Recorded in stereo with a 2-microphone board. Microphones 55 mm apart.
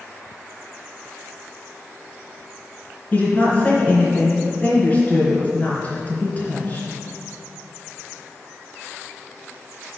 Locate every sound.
3.1 s a woman speaking: 35° left (ahead or behind), 3 m